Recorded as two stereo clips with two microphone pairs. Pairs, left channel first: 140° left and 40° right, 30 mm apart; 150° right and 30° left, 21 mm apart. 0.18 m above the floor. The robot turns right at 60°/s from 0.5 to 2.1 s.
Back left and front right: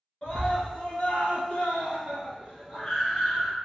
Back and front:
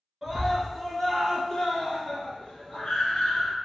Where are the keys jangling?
No keys jangling in this recording.